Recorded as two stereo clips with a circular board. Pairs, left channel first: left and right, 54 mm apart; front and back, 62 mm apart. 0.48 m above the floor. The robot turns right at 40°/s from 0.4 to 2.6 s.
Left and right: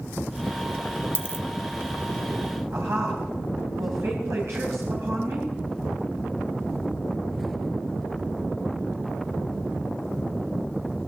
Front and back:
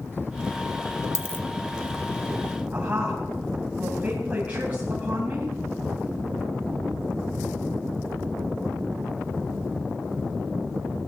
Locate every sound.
1.1 s a dropped coin: 45° left, 1.0 m; by 1.4 s 55° left, 1.0 m
2.7 s a woman speaking: 115° right, 3 m